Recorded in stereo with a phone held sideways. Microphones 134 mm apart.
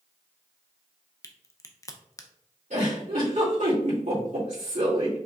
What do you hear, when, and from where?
1.2 s a crack: 25° left (ahead or behind), 0.5 m
2.7 s a giggle: 65° right (ahead or behind), 2 m